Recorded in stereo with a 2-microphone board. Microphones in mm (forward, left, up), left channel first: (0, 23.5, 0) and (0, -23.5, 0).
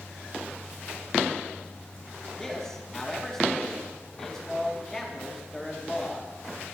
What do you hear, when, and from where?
2.4 s a man speaking: 10° left (ahead or behind), 2.5 m